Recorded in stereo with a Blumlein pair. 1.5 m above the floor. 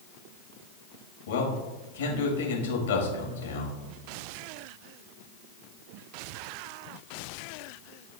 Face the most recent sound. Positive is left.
turn(degrees=60)